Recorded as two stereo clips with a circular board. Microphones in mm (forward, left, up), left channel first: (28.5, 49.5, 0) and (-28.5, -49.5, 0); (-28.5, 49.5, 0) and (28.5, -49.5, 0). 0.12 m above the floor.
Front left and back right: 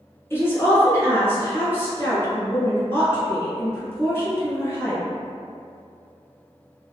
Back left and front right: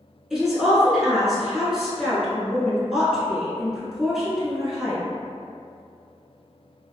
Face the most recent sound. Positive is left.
turn(degrees=20)